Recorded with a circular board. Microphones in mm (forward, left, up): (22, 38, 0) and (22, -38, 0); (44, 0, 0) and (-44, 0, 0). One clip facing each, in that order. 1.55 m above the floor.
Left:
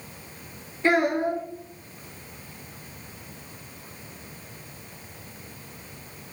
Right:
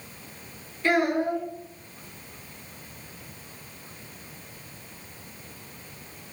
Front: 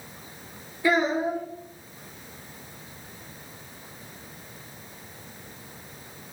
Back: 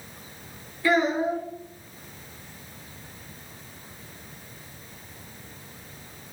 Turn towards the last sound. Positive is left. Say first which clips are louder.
# left 1 dB, back 1 dB
turn(degrees=55)